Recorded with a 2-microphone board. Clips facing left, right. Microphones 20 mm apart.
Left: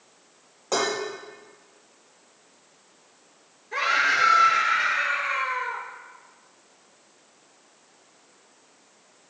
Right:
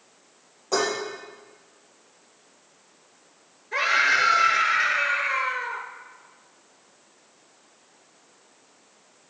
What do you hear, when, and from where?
0.7 s dishes clattering: 30° left (ahead or behind), 5 m
3.7 s a scream: 10° right (ahead or behind), 4.5 m